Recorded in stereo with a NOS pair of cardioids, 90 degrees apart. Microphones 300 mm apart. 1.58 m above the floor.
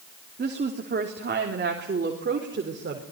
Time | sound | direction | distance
0.4 | a woman speaking | 30° right | 3 m